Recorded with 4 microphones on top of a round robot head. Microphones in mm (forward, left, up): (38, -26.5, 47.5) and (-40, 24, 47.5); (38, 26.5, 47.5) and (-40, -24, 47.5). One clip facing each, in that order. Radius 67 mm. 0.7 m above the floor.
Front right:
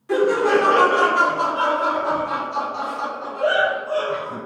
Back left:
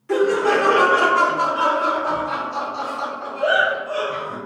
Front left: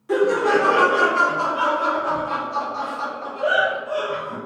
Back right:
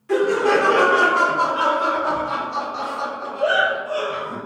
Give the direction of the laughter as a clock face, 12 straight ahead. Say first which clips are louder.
Even, even; 12 o'clock.